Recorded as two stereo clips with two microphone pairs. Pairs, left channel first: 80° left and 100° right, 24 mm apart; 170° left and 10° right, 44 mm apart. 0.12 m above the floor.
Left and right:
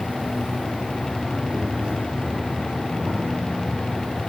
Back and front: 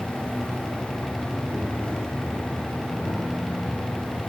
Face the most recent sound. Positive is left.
turn(degrees=-130)